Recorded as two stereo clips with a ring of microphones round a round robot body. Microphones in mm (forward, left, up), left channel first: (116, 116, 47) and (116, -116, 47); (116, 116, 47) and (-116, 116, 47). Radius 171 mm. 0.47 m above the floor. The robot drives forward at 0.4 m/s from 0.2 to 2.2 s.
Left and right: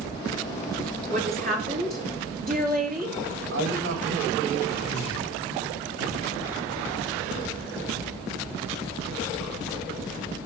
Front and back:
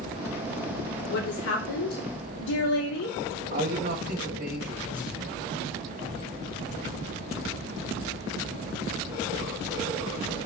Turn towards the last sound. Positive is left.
turn(degrees=-120)